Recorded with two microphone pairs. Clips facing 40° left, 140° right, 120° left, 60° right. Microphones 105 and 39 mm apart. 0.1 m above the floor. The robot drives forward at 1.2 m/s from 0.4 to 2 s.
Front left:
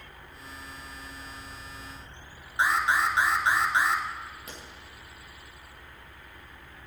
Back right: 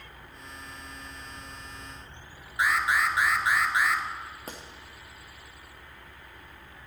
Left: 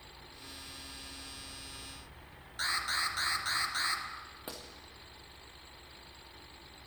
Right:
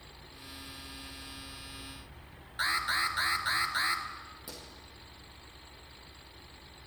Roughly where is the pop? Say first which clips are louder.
Back right 3 dB, left 4 dB; behind.